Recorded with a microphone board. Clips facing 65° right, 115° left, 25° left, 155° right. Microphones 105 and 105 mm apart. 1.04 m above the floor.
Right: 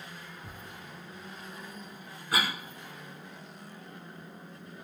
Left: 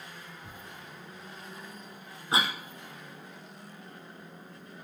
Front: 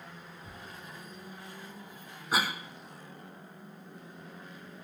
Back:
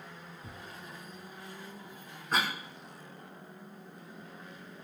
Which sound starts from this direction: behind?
Tearing paper, at 0.4 s.